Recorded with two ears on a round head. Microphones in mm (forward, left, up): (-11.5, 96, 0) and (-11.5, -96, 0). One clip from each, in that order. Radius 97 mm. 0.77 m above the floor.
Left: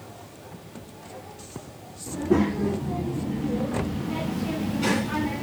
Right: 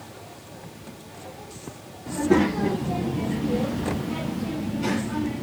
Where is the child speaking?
60° right (ahead or behind), 1.5 m; by 5.4 s 35° left (ahead or behind), 1.4 m.